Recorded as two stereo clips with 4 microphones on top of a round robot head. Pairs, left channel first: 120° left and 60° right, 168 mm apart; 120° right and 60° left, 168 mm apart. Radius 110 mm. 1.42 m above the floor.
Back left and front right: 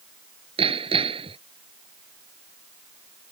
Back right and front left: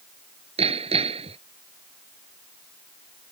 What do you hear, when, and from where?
0.6 s hammering: straight ahead